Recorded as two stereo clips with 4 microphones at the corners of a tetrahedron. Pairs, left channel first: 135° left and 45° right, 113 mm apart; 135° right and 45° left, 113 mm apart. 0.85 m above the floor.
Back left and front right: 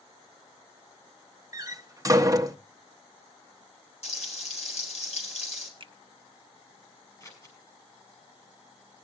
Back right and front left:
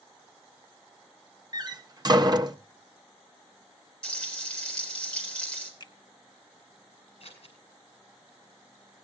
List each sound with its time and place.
1.5 s a door slam: 5° left, 0.7 m
4.0 s frying: 145° left, 4.5 m
5.8 s a finger snap: 85° right, 0.9 m
7.2 s scissors: 165° right, 5.5 m